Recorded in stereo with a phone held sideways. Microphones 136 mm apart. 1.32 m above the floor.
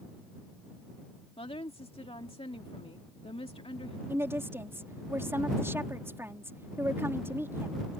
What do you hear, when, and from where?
1.4 s a woman speaking: 45° left (ahead or behind)
4.1 s a woman speaking: 20° right (ahead or behind)